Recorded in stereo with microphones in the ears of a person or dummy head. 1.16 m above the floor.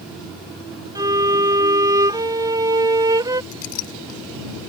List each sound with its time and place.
0.9 s a violin: 20° right (ahead or behind)
3.5 s a clink: 45° left (ahead or behind)